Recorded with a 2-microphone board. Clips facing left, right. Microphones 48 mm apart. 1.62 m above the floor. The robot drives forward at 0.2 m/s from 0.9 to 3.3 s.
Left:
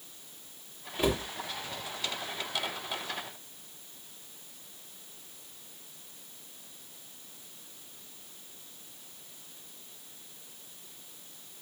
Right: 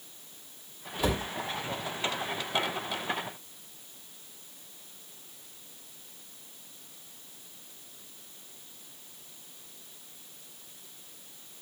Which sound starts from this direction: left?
A cupboard door, at 1.0 s.